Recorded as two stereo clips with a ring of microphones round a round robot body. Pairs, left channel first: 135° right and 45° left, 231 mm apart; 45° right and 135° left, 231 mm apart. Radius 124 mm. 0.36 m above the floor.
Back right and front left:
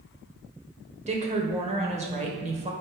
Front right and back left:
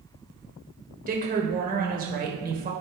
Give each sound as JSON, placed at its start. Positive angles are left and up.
{"t": 1.1, "sound": "a woman speaking", "azimuth_deg": 95, "distance_m": 1.6}